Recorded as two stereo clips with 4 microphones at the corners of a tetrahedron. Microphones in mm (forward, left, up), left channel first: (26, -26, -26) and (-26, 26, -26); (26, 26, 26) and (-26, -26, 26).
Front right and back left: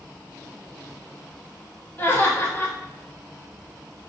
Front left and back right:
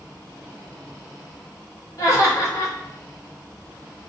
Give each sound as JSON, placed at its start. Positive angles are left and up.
{"t": 2.0, "sound": "laughter", "azimuth_deg": 15, "distance_m": 1.2}